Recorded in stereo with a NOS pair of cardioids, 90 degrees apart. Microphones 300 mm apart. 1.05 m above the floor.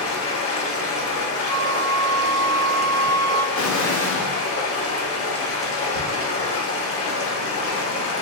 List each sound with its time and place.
0.0 s running water: 45° left, 1.2 m
1.5 s a flute: 55° left, 0.6 m
3.5 s an explosion: 70° left, 1.1 m